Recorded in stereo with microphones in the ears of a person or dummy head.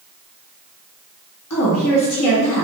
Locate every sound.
1.5 s a woman speaking: 70° left (ahead or behind), 1.3 m